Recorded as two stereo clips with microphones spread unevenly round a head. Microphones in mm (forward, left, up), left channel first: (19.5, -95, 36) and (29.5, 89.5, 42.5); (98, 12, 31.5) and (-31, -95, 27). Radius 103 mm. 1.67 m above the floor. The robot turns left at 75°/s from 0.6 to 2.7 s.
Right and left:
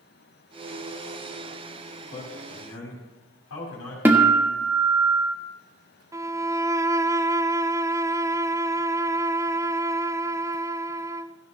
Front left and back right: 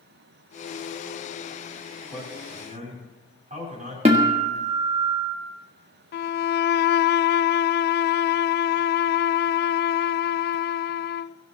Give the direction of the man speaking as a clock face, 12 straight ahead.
2 o'clock.